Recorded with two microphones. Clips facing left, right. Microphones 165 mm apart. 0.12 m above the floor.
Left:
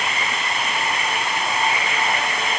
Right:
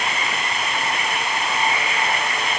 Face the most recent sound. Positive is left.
No sound to turn to.